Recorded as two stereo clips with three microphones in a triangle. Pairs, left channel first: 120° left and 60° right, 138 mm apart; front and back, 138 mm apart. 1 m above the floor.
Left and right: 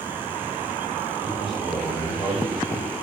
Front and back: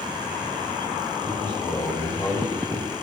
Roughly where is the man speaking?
Ahead left.